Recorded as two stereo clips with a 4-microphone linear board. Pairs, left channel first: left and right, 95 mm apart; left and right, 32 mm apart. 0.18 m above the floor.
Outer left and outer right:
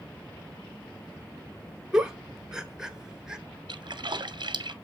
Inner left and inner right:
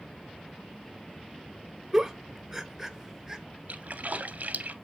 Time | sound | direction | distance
1.9 | a giggle | 10° right (ahead or behind) | 0.7 m
3.7 | a splash | 55° right (ahead or behind) | 0.5 m